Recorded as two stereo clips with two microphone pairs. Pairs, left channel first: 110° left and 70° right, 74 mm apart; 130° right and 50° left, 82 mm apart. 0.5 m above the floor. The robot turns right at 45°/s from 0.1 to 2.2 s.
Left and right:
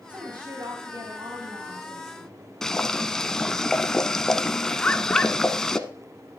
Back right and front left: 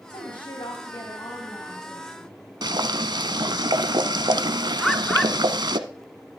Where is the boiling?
25° left, 1.0 m.